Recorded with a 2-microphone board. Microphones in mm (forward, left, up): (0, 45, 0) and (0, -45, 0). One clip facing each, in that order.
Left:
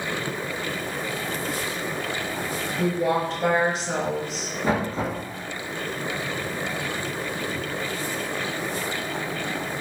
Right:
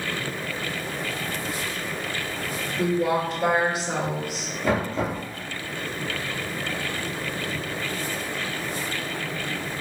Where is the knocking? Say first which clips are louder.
Even; 40° left (ahead or behind), 2.0 m.